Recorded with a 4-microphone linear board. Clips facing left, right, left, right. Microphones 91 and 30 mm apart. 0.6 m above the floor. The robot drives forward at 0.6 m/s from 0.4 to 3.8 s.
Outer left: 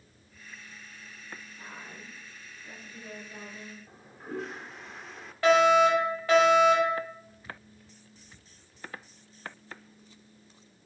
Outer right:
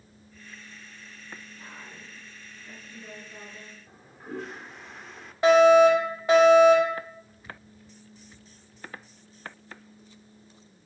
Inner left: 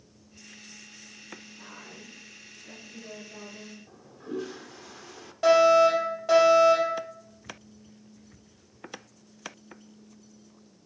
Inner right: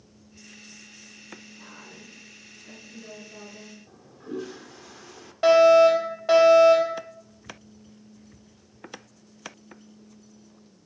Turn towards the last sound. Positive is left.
turn(degrees=-20)  # may be behind; listen again after turning